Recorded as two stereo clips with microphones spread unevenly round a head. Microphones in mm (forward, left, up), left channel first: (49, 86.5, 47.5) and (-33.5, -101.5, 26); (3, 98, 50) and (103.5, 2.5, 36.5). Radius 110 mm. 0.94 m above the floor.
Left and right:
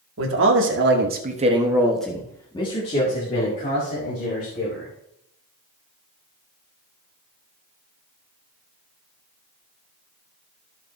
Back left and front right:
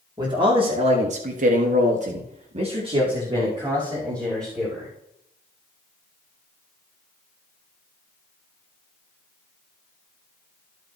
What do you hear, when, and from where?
0.2 s a man speaking: 110° right, 2.5 m; by 4.9 s 25° left, 5 m